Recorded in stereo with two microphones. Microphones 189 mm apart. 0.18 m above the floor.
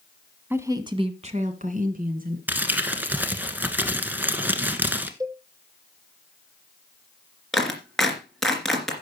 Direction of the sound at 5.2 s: 20° right (ahead or behind).